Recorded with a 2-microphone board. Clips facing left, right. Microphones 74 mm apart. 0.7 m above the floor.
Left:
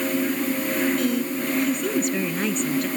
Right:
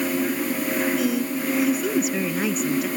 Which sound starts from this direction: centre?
A woman speaking, at 1.0 s.